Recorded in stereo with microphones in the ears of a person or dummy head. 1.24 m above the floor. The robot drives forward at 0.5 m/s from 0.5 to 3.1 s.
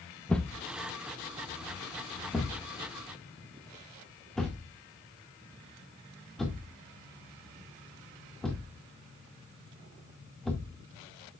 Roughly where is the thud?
Centre.